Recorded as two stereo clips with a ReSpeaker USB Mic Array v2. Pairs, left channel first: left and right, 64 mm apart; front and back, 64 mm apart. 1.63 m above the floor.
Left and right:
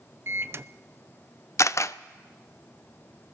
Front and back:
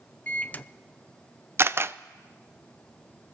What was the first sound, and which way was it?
A microwave, 60° right.